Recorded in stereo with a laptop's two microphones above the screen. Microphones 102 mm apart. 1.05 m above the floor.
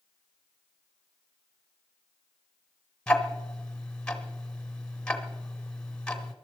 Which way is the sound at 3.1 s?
10° left (ahead or behind).